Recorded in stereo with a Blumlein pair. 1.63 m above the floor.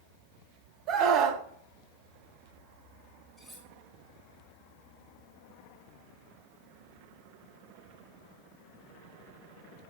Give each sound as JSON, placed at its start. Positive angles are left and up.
{"t": 0.9, "sound": "a scream", "azimuth_deg": -35, "distance_m": 1.2}
{"t": 3.4, "sound": "cutlery clinking", "azimuth_deg": 0, "distance_m": 5.0}